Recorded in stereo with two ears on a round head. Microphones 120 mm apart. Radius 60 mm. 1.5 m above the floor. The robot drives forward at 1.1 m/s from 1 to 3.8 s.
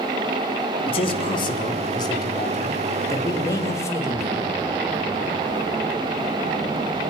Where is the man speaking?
45° left (ahead or behind), 3.5 m; by 4.5 s 25° left (ahead or behind), 6 m.